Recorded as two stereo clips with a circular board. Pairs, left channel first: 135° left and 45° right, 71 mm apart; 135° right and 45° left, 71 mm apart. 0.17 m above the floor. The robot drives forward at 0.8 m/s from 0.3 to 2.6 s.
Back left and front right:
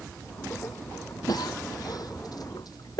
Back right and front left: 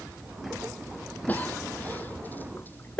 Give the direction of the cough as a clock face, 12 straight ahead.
7 o'clock.